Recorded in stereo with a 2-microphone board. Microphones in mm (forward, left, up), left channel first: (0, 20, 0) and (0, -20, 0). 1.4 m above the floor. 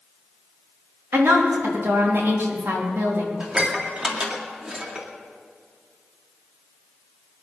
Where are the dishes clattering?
25° right (ahead or behind), 2 m.